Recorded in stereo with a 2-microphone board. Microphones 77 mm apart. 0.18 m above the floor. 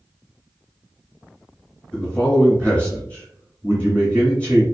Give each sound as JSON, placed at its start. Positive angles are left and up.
{"t": 1.9, "sound": "a man speaking", "side_deg": 10, "distance_m": 1.4}